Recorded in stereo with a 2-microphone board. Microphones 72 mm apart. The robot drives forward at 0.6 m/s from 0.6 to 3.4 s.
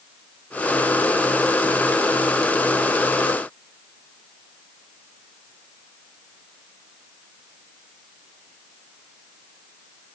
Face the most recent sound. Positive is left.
No sound to turn to.